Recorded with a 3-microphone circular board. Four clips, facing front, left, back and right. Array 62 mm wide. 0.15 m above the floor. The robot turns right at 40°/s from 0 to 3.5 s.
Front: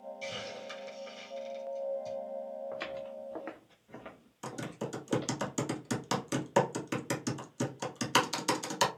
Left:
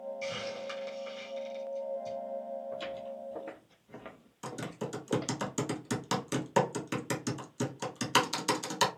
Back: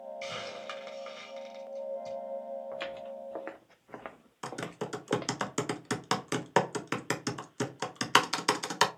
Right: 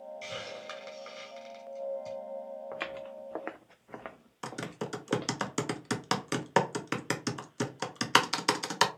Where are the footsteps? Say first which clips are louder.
Even, back 1 dB; 100° right, 0.8 m; by 5.4 s straight behind, 1.2 m.